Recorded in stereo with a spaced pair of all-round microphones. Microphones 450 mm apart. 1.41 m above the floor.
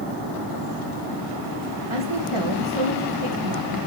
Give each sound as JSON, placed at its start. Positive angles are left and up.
{"t": 1.9, "sound": "a woman speaking", "side_deg": -80, "distance_m": 1.7}